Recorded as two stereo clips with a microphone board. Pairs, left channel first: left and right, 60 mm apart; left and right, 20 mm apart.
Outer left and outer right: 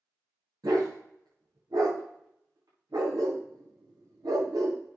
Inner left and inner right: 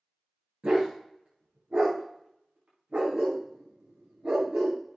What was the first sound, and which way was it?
A dog barking, 85° right.